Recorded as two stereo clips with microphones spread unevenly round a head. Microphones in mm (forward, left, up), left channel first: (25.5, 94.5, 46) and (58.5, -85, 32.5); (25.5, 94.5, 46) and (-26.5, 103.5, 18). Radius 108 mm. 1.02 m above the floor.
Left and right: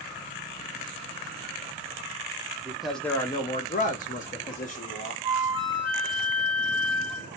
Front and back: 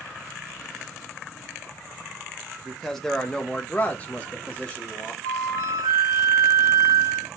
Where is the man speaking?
150° right, 0.7 m; by 5.1 s 65° left, 1.2 m.